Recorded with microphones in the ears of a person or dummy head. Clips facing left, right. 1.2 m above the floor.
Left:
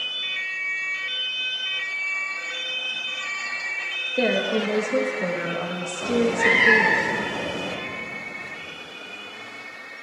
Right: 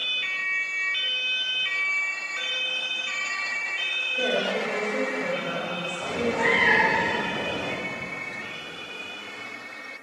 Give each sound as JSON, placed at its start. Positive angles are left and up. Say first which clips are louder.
{"t": 4.2, "sound": "a woman speaking", "louder": "left 4 dB", "side_deg": 75, "distance_m": 1.2}
{"t": 6.0, "sound": "a cat meowing", "louder": "left 5 dB", "side_deg": 30, "distance_m": 2.0}